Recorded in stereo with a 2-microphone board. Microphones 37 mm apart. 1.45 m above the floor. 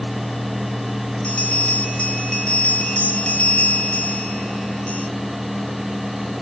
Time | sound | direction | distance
1.2 | a bell | 20° left (ahead or behind) | 1.4 m